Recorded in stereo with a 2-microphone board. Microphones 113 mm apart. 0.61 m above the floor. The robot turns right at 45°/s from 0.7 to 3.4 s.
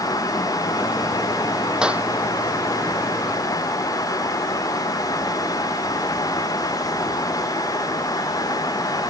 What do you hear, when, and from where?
1.8 s a clap: 5° right (ahead or behind); by 2.1 s 15° right (ahead or behind)